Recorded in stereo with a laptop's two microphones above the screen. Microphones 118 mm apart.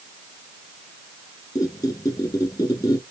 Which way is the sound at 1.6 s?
30° left (ahead or behind).